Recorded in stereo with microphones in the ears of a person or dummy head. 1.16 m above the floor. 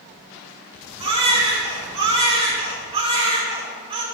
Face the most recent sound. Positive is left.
turn(degrees=-40)  # may be behind; listen again after turning